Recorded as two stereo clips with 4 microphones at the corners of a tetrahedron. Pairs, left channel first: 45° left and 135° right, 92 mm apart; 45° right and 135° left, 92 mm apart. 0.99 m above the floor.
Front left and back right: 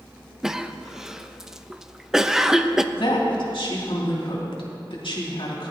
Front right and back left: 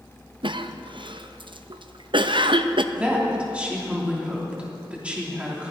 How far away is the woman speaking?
About 2.5 m.